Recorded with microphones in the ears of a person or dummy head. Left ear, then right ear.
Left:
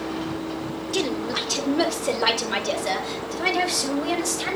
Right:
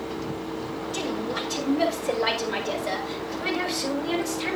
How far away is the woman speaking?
About 3.5 m.